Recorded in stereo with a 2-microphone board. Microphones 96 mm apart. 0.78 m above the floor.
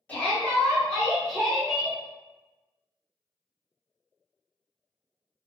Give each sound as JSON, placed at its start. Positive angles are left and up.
{"t": 0.1, "sound": "a shout", "side_deg": 15, "distance_m": 1.6}